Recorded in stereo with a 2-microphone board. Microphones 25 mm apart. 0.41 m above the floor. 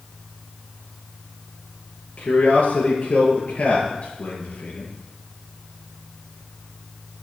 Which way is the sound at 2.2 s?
70° left (ahead or behind).